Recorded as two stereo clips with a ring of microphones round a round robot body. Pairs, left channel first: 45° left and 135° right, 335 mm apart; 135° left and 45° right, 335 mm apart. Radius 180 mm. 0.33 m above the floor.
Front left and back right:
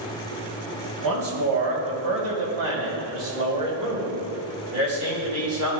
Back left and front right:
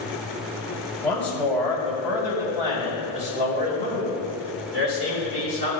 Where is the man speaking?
145° right, 2.5 m; by 5.8 s 95° right, 3.5 m.